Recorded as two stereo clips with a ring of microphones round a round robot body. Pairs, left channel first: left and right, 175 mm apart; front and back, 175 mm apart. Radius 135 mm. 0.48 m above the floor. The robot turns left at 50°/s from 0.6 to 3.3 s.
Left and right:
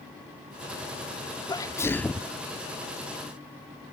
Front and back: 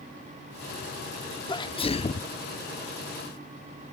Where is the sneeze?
40° left; by 2.3 s straight ahead.